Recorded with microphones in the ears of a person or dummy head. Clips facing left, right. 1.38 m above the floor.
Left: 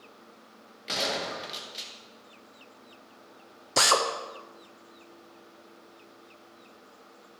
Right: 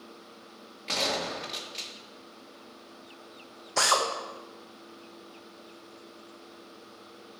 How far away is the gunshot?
About 1.2 m.